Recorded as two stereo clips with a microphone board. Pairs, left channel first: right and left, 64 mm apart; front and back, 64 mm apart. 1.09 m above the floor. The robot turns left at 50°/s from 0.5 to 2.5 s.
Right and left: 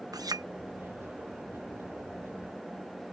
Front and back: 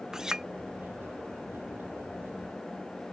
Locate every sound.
0.1 s a clink: 100° left